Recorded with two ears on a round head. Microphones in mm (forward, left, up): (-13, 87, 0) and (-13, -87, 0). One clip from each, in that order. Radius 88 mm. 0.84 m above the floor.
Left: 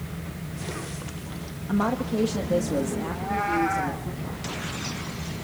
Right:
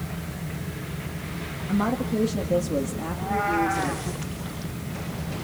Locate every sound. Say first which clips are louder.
1.7 s a woman speaking: left 1 dB; 30° left (ahead or behind), 1.2 m; by 4.1 s 5° left (ahead or behind), 2.5 m
3.1 s a cat meowing: right 2 dB; 15° left (ahead or behind), 2.5 m